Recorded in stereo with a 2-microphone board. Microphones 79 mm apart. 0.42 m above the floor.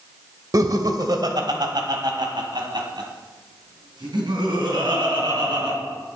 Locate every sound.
0.5 s laughter: 50° right (ahead or behind), 1.3 m; by 5.8 s 75° right (ahead or behind), 4 m